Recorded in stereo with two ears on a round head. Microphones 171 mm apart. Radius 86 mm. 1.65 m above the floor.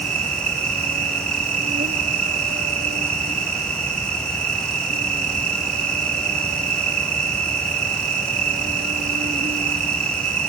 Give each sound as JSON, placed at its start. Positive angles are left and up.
{"t": 0.0, "sound": "an insect", "side_deg": -40}